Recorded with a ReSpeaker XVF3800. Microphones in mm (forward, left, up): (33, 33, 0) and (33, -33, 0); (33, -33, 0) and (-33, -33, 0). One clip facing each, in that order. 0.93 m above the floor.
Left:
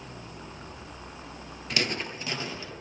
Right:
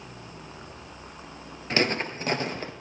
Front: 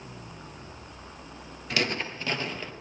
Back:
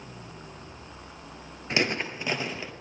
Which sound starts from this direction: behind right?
Footsteps, at 1.7 s.